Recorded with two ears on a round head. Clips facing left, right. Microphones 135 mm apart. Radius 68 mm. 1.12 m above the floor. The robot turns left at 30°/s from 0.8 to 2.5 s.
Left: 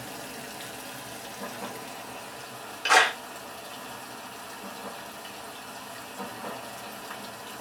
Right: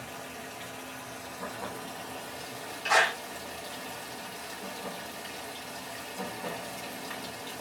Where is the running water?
45° left, 0.7 m; by 7.6 s 5° right, 0.7 m.